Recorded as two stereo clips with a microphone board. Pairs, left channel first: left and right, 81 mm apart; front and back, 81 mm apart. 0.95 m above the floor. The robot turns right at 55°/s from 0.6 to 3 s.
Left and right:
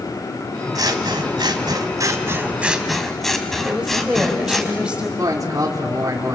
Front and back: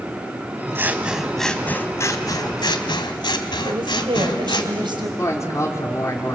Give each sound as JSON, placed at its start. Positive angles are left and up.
{"t": 0.8, "sound": "scissors", "azimuth_deg": -120, "distance_m": 1.7}
{"t": 3.6, "sound": "a woman speaking", "azimuth_deg": -165, "distance_m": 4.0}
{"t": 5.2, "sound": "a man speaking", "azimuth_deg": -50, "distance_m": 3.0}